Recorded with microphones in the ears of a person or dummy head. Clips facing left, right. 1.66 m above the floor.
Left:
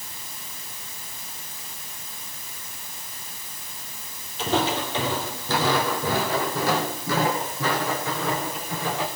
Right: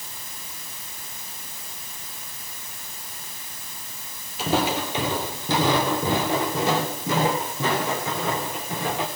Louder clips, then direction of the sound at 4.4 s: Right 1 dB; 5° right (ahead or behind).